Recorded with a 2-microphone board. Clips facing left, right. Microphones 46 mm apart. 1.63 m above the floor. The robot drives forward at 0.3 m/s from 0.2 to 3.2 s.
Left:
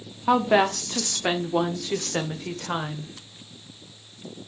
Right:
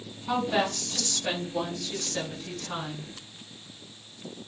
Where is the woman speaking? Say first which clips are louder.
Left 7 dB; 60° left (ahead or behind), 0.9 m; by 3.1 s 50° left (ahead or behind), 1.1 m.